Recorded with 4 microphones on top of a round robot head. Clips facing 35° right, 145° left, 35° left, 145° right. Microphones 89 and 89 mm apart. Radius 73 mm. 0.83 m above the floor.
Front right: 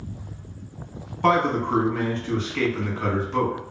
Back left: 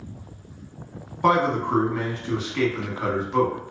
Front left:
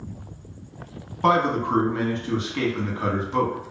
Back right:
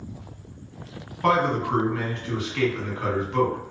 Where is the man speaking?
75° left, 1.0 m.